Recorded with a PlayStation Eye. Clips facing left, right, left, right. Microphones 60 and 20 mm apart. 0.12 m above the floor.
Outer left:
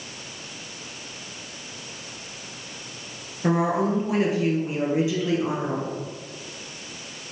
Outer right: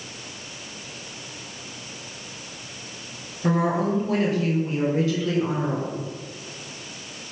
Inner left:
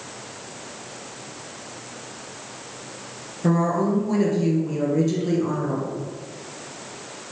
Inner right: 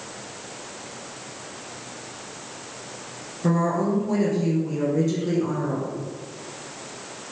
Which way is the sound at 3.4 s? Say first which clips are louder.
Even, inner left 1 dB; 15° left (ahead or behind).